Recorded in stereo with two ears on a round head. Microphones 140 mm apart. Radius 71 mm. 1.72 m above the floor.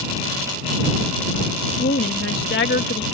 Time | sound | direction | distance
1.7 | a woman speaking | 65° left (ahead or behind) | ?